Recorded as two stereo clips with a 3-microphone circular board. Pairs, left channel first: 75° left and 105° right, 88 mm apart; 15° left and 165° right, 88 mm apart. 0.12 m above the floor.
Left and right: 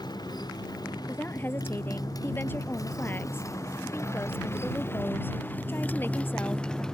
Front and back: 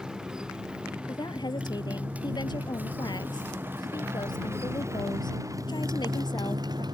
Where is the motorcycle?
115° left; by 6.9 s 160° left.